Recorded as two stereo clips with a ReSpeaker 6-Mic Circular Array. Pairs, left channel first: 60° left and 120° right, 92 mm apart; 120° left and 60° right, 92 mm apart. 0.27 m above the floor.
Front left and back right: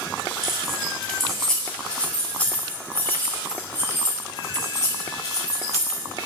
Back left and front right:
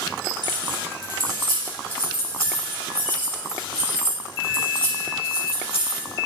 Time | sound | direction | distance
0.4 | keys jangling | 155° left | 4 m